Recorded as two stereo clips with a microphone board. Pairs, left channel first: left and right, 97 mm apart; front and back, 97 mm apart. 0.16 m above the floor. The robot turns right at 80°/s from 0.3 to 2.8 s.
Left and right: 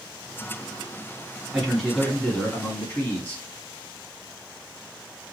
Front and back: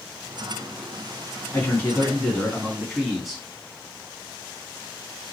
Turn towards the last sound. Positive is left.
turn(degrees=90)